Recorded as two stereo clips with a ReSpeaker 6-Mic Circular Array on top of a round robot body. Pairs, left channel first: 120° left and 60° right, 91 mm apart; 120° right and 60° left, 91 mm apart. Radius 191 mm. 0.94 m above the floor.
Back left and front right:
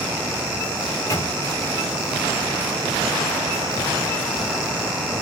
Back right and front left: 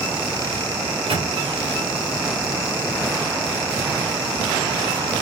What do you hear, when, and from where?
0.9 s a microwave: 65° left, 2 m